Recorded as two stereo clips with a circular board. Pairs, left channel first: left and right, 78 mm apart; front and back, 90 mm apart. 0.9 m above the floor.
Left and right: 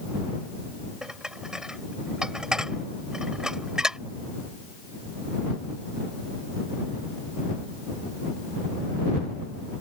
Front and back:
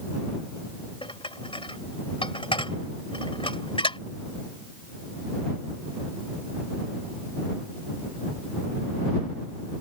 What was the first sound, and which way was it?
Dishes clattering, 5° right.